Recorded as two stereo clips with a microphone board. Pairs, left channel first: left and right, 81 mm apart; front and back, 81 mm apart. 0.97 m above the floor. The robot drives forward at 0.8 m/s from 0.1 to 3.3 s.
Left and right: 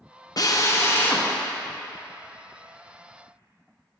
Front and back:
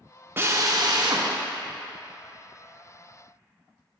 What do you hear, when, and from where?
0.4 s a drill: 120° left, 0.6 m; by 1.3 s 155° left, 1.1 m